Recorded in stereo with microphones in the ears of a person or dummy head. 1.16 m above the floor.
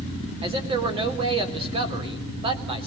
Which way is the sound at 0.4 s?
30° right (ahead or behind).